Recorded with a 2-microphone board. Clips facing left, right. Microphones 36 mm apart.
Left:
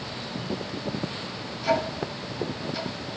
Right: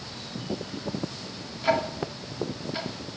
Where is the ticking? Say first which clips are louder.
Even; 30° right (ahead or behind), 1.8 m.